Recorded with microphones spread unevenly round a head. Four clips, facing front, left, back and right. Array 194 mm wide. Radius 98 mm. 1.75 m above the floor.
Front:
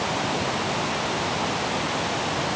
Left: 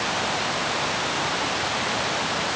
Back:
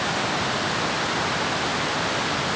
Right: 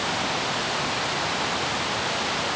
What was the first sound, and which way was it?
Only background noise.